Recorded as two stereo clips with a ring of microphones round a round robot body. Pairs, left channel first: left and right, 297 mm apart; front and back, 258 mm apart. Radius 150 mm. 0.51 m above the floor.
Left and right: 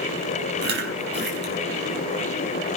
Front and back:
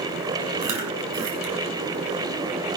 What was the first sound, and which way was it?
Chewing, 145° right.